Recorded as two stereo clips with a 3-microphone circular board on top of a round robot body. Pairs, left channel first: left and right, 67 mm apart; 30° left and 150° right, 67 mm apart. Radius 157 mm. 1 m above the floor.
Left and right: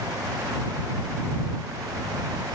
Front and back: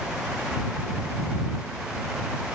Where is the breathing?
I don't hear breathing.